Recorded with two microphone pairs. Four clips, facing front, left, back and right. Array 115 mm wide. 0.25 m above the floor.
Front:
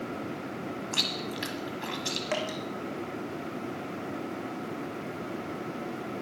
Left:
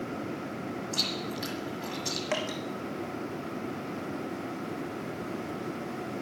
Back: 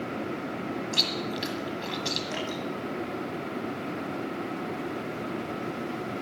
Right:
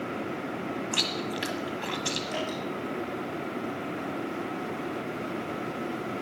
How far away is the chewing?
About 1.4 m.